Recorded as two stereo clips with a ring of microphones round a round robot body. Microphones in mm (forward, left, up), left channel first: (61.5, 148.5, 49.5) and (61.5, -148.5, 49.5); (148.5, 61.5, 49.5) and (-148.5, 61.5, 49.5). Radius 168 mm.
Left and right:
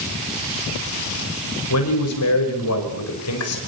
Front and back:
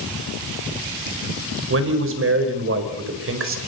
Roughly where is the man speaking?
Behind left.